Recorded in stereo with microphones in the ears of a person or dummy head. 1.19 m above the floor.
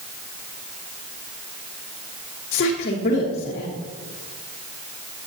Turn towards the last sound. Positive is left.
turn(degrees=45)  # may be behind; listen again after turning